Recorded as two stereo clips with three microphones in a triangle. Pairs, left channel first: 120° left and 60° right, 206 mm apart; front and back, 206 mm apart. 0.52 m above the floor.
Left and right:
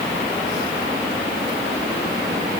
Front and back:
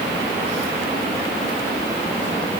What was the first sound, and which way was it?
Only background noise.